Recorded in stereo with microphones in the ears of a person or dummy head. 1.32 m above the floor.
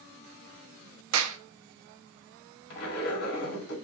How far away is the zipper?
About 1.8 m.